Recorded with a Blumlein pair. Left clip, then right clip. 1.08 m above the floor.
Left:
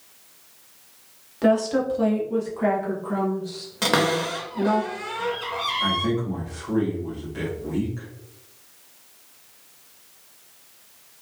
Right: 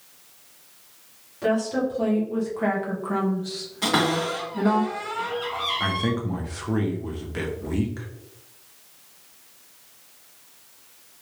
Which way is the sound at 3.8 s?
30° left.